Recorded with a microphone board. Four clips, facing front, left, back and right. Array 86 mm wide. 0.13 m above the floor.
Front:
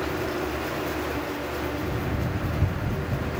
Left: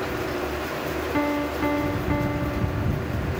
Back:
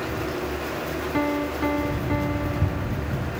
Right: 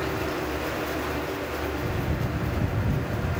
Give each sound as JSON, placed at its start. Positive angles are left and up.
{"t": 1.1, "sound": "a piano", "azimuth_deg": 135}